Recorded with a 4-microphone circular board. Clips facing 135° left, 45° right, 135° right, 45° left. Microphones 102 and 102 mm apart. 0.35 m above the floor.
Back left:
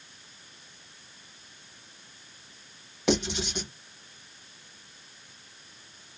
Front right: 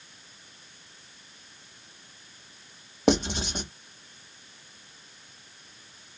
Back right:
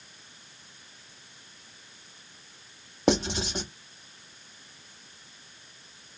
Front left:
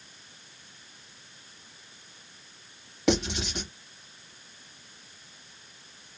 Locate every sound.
3.1 s writing: 85° right, 1.1 m